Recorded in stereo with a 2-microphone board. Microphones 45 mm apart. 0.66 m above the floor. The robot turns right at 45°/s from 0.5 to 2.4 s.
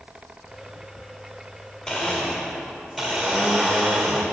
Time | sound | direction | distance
1.9 | a blender | 15° left (ahead or behind) | 1.4 m